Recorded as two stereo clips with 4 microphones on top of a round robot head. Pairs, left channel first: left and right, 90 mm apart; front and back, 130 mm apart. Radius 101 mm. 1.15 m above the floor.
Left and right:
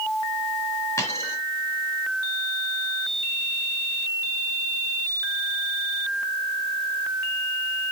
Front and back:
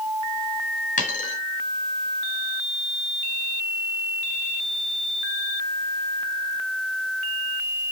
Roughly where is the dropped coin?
Ahead.